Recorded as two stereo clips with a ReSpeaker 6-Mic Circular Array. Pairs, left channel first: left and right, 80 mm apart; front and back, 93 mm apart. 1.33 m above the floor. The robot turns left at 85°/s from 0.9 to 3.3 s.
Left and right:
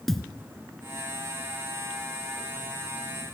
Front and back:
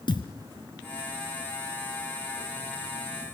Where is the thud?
5° left, 2 m.